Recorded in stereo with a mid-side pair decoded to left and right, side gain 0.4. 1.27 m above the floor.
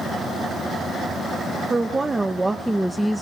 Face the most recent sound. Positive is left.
turn(degrees=0)